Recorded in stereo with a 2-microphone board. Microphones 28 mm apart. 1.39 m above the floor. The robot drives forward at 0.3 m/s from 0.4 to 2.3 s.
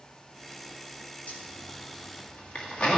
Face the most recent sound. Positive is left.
turn(degrees=50)  # may be behind; listen again after turning